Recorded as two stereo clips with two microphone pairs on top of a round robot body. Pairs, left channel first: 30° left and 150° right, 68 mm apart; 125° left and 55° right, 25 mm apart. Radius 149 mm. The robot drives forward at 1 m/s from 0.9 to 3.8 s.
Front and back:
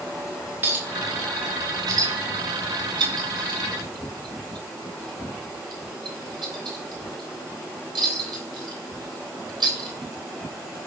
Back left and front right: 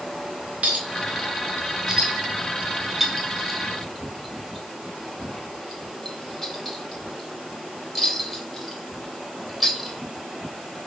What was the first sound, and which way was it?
A clink, 85° right.